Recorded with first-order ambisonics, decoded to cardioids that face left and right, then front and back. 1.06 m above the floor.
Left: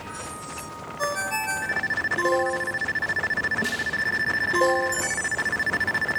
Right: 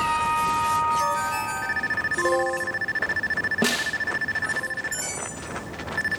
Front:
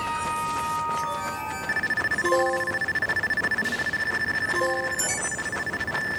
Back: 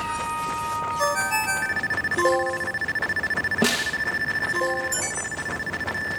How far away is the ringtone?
About 2.5 m.